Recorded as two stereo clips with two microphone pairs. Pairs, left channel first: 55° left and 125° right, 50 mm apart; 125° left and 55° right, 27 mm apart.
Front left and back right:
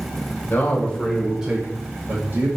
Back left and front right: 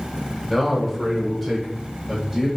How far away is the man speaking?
About 1.1 m.